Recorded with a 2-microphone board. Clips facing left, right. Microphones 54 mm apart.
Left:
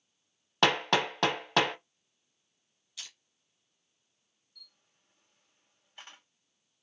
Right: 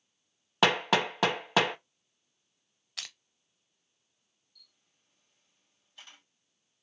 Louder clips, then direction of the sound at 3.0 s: Right 4 dB; 65° right (ahead or behind).